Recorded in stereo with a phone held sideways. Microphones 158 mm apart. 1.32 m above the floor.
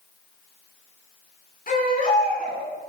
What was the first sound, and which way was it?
A baby crying, 60° left (ahead or behind).